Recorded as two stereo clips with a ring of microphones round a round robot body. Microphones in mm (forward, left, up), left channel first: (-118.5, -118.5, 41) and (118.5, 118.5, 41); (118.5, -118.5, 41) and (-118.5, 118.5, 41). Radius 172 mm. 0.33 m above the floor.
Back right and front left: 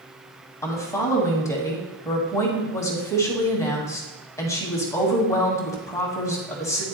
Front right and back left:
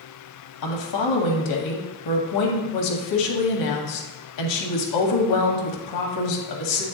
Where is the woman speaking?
55° right, 2.0 m.